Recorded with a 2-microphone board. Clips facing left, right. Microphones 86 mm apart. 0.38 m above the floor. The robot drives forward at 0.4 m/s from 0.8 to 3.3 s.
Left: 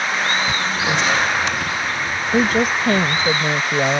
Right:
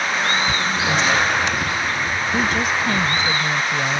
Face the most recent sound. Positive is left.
turn(degrees=50)  # may be behind; listen again after turning